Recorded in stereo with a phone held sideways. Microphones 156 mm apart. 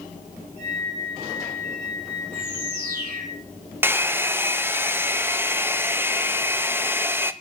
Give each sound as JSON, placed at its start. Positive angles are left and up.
{"t": 0.6, "sound": "a flute", "side_deg": -50, "distance_m": 3.5}
{"t": 2.3, "sound": "a bird", "side_deg": -80, "distance_m": 3.5}
{"t": 3.8, "sound": "a hair dryer", "side_deg": -15, "distance_m": 0.6}